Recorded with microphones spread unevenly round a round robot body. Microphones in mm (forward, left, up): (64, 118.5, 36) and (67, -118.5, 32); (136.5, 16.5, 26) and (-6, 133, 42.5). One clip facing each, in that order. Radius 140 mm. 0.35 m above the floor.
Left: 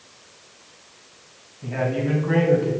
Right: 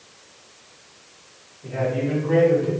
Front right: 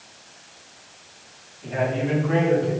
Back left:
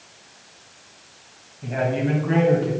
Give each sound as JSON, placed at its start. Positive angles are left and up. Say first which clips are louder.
{"t": 1.6, "sound": "a man speaking", "louder": "even, back left 1 dB", "azimuth_deg": 105, "distance_m": 2.0}